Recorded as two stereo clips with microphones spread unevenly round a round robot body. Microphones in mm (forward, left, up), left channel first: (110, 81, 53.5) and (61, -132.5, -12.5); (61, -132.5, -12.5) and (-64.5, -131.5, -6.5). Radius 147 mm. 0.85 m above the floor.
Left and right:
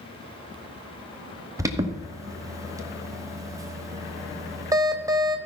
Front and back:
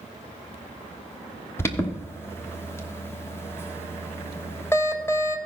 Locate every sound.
1.6 s an alarm: 60° right, 1.2 m